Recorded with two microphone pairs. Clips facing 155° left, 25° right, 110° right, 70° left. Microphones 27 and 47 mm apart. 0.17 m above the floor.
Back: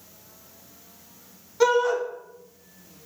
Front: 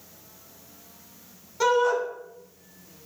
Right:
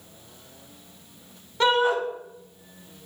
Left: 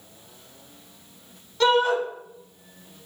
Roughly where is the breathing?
I don't hear breathing.